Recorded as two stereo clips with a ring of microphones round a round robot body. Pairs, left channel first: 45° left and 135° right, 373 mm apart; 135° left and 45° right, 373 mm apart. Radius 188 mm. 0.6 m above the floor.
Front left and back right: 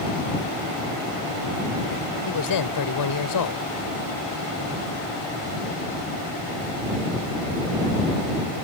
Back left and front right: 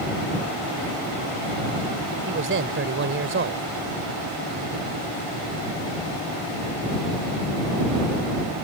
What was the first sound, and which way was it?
A man speaking, 10° left.